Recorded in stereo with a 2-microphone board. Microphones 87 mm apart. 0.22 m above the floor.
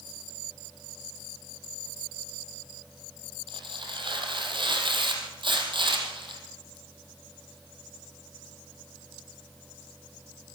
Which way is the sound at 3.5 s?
65° right (ahead or behind).